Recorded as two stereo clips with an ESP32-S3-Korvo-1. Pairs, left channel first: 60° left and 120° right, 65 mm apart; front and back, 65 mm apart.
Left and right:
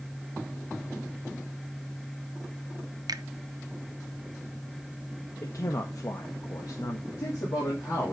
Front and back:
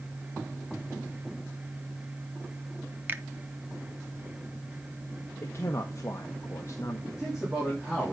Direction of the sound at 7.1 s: 95° left.